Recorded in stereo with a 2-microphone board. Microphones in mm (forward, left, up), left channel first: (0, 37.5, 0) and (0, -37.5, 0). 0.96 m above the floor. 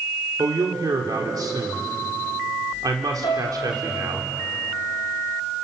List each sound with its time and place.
0.4 s a man speaking: 55° right (ahead or behind), 2.5 m
3.2 s a piano: 65° left (ahead or behind), 3 m